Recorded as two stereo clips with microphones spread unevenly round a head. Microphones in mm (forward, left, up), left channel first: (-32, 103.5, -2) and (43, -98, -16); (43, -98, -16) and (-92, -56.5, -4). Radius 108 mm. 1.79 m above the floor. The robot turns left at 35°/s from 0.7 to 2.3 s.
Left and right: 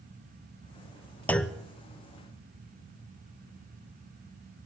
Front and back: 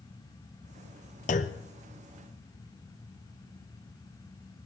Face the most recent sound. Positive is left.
turn(degrees=-5)